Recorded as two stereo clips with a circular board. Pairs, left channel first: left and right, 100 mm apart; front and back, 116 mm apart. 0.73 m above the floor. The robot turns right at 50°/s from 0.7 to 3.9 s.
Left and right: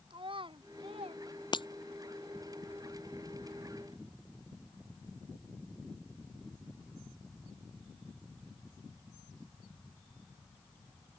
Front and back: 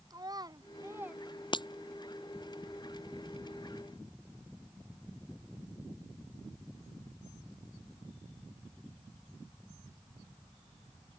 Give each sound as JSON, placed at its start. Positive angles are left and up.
{"t": 0.1, "sound": "a child speaking", "azimuth_deg": -125}
{"t": 1.5, "sound": "breaking glass", "azimuth_deg": 50}